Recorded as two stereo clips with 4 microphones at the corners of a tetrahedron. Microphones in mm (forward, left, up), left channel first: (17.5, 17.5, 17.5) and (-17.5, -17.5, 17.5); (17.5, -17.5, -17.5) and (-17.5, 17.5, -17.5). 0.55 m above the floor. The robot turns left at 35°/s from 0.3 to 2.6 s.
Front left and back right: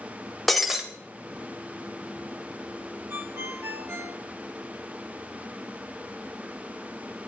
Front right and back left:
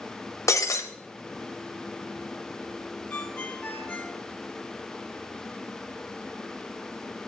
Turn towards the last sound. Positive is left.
turn(degrees=-105)